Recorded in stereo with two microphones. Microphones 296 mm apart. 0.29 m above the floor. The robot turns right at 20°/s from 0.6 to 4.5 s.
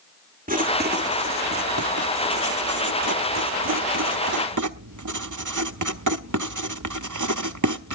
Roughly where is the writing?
Right.